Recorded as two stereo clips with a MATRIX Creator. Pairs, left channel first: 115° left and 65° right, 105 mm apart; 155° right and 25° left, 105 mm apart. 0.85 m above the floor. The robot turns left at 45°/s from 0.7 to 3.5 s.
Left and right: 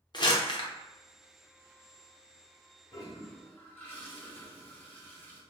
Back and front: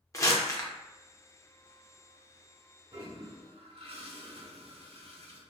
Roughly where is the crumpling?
Behind left.